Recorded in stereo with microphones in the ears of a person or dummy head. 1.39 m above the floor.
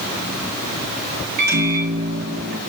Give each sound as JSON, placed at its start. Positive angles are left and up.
{"t": 1.4, "sound": "a microwave", "side_deg": -55, "distance_m": 1.2}